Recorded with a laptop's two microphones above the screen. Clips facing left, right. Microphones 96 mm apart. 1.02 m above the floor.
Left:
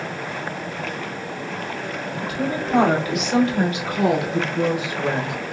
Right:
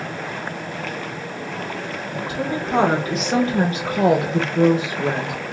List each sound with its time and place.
2.2 s a woman speaking: 25° right (ahead or behind), 1.6 m; by 5.4 s 20° right (ahead or behind), 1.4 m